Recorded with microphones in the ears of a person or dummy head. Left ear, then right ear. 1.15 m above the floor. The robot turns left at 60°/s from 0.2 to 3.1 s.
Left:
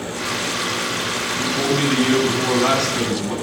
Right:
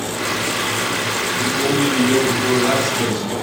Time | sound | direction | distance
1.4 | a man speaking | 115° left | 9 m